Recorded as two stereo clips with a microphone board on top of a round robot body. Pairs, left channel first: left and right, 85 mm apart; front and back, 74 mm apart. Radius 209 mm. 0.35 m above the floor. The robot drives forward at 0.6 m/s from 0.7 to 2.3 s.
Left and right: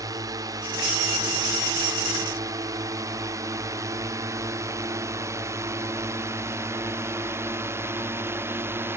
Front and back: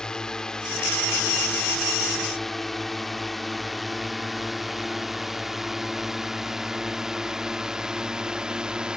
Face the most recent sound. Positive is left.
turn(degrees=-110)